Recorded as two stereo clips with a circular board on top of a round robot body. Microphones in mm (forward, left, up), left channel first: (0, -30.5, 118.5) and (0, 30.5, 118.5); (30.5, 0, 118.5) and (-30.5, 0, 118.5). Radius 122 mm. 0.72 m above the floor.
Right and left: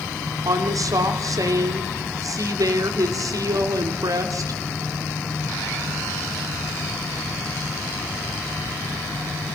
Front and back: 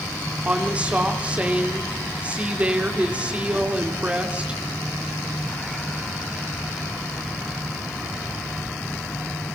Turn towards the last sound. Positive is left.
turn(degrees=110)